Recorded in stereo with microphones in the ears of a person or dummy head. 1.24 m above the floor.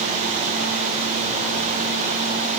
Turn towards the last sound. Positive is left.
No sound to turn to.